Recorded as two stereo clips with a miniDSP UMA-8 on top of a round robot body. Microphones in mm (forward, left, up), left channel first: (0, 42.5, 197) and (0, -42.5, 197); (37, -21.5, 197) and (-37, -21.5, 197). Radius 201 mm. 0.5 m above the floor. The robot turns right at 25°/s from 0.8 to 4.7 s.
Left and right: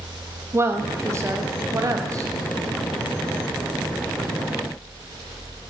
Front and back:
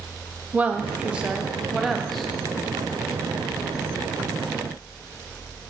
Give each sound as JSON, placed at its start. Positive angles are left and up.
{"t": 0.5, "sound": "a woman speaking", "azimuth_deg": -120, "distance_m": 1.1}